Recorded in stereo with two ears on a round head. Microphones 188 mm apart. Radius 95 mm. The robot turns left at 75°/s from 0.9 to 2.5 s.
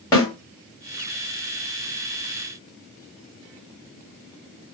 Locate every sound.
0.1 s a snare drum: 15° left (ahead or behind), 1.7 m